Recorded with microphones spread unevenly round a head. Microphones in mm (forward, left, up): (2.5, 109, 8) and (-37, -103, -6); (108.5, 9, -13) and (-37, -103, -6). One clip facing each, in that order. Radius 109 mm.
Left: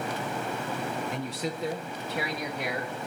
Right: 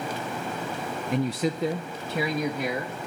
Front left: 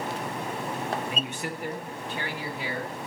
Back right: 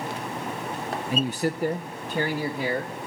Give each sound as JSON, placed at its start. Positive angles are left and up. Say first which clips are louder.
{"t": 1.1, "sound": "a man speaking", "louder": "right 7 dB, back right 8 dB", "azimuth_deg": -85, "distance_m": 0.5}